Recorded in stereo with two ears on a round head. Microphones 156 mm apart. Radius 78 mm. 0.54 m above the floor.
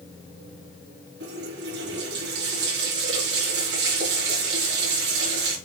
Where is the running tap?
75° right (ahead or behind), 4.5 m.